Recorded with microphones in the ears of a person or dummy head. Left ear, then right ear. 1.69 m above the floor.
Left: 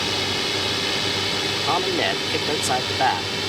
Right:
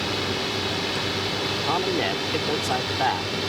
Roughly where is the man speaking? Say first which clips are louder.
Left 3 dB; left.